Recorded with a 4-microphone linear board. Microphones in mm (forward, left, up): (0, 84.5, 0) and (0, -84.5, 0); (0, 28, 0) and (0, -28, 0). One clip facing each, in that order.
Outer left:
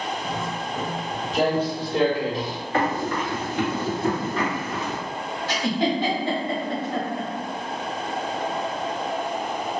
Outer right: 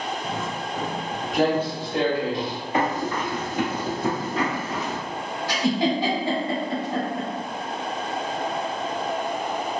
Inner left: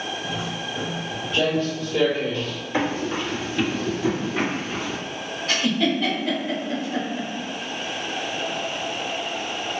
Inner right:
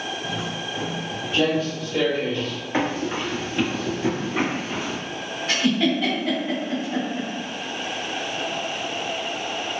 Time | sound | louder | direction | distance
0.2 | footsteps | even, even | 30° right (ahead or behind) | 1.9 m
2.7 | running footsteps | outer left 1 dB, even | 20° right (ahead or behind) | 1.6 m
5.5 | a giggle | outer right 1 dB, inner right 1 dB | 15° right (ahead or behind) | 1.5 m